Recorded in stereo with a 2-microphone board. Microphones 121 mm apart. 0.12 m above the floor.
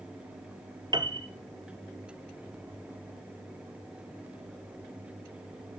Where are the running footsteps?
No running footsteps in this recording.